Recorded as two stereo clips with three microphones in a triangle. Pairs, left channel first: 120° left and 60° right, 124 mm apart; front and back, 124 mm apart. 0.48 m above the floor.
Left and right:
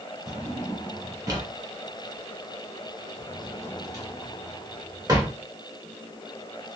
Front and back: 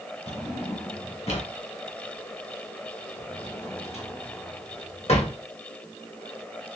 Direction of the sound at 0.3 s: 5° right.